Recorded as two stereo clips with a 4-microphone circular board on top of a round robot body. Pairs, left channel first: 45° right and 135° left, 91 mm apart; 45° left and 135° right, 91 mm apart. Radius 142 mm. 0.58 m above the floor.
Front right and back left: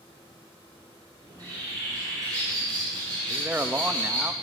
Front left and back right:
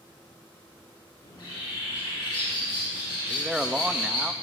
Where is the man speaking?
160° left, 1.0 m.